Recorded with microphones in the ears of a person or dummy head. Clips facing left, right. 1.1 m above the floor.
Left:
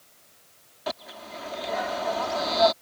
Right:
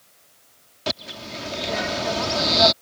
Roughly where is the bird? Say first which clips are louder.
Right 3 dB; right.